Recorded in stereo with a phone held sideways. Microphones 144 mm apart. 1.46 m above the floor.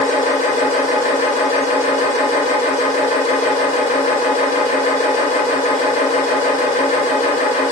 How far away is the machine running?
About 0.8 m.